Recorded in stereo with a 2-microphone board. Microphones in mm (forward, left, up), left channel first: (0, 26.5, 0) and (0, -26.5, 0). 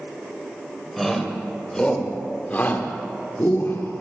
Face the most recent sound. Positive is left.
turn(degrees=60)  # may be behind; listen again after turning